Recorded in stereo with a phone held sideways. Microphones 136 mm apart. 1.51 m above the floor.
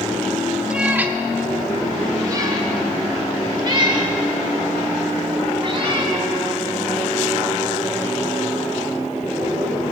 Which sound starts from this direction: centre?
A cat meowing, at 0.7 s.